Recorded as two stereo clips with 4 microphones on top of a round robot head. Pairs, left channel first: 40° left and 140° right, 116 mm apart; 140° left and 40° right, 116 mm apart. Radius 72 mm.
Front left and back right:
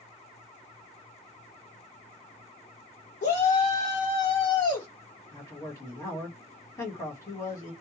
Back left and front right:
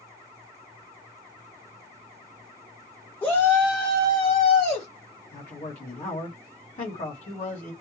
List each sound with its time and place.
3.2 s a shout: 65° left, 1.6 m; by 4.9 s 105° left, 2.5 m
5.3 s a man speaking: 110° left, 2.5 m